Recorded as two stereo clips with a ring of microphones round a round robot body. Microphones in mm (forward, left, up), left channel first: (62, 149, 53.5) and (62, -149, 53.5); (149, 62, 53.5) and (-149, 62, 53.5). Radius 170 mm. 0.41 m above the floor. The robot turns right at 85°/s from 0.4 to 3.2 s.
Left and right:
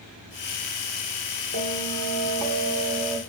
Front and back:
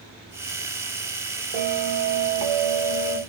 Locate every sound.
1.5 s a bell: 135° left, 1.8 m; by 3.2 s 85° right, 1.8 m